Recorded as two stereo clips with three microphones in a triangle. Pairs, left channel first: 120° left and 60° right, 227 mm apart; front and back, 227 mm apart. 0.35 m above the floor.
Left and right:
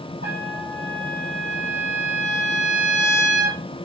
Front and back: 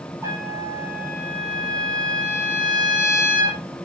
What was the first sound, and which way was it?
A trumpet, 100° right.